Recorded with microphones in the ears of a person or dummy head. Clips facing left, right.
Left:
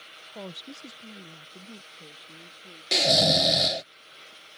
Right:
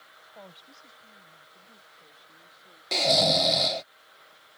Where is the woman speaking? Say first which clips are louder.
Left 9 dB; 50° left (ahead or behind); by 3.9 s 35° left (ahead or behind).